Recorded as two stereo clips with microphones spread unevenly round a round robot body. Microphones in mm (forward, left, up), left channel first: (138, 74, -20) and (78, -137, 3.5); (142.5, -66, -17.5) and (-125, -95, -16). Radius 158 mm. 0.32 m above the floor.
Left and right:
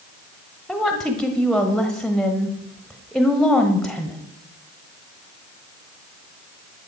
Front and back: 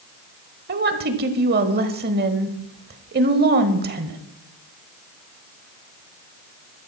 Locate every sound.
0.7 s a woman speaking: 155° left, 1.2 m